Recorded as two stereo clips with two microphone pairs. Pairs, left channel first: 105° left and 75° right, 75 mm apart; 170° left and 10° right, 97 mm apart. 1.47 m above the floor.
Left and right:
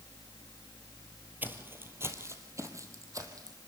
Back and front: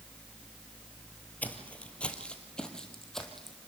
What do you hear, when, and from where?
1.4 s footsteps: 125° right, 1.9 m; by 3.6 s 105° right, 3 m